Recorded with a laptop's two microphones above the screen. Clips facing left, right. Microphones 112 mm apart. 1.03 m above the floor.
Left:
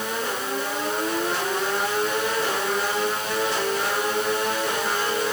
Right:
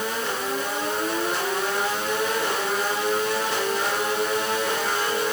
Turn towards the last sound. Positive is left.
No sound to turn to.